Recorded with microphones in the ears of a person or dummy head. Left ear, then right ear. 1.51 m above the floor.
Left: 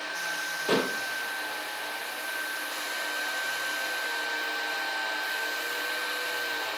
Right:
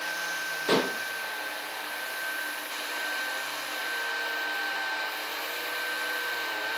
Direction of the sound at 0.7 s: 10° right (ahead or behind).